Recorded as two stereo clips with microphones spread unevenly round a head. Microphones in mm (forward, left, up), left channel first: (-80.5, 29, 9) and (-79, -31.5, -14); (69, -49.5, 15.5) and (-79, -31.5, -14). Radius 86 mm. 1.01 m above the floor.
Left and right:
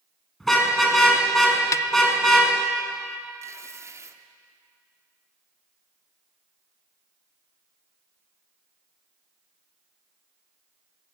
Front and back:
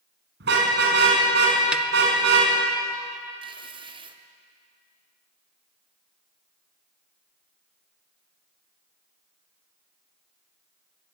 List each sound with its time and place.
0.4 s a car horn: 175° left, 6 m
1.7 s a snare drum: 115° left, 0.6 m
3.4 s tearing paper: 130° right, 1.4 m